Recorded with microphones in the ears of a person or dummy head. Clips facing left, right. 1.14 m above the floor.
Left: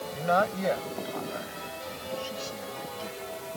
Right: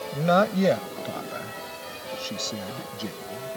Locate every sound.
0.1 s a man speaking: 55° right (ahead or behind); by 3.6 s 50° right (ahead or behind)